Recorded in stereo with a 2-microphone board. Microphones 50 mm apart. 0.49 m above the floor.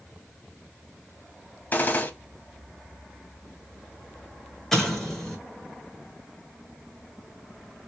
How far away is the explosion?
About 1.5 m.